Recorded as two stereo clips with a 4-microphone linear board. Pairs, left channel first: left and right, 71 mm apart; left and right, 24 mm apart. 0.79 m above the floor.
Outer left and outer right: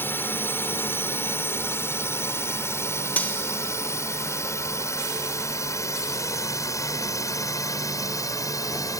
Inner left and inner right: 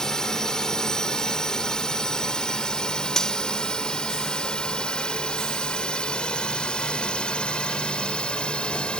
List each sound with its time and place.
0.0 s a drone: 30° left (ahead or behind); by 9.0 s 50° left (ahead or behind)
3.2 s cutlery clinking: 25° left (ahead or behind)